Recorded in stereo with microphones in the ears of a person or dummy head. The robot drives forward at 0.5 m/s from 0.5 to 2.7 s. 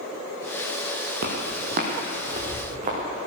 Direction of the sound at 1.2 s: 50° right (ahead or behind).